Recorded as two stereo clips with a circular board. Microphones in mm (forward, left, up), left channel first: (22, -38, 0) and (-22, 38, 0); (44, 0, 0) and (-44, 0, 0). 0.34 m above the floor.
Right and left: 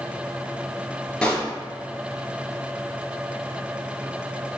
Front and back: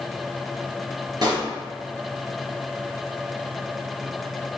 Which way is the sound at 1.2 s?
140° right.